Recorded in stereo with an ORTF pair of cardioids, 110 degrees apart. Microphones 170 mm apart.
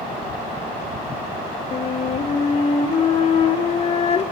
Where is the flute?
40° left, 1.8 m.